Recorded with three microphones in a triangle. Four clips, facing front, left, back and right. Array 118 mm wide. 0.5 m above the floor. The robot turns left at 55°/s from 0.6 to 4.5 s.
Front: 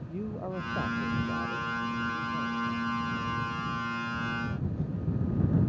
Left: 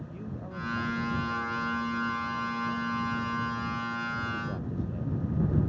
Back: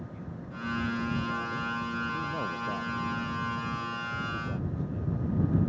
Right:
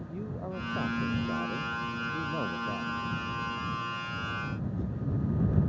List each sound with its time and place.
0.1 s a man speaking: 25° right; by 5.1 s 120° left